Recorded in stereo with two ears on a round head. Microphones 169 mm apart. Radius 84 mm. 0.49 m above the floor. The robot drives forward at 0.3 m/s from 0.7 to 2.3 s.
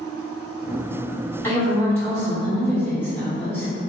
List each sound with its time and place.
1.4 s a woman speaking: 15° left (ahead or behind), 1.9 m; by 3.7 s 10° left (ahead or behind), 2 m